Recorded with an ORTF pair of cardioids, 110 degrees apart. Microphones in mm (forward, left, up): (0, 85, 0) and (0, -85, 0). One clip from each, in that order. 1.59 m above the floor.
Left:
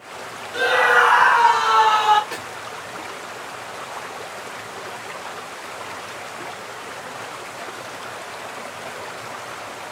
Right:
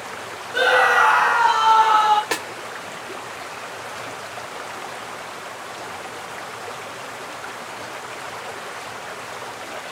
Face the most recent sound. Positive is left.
turn(degrees=-60)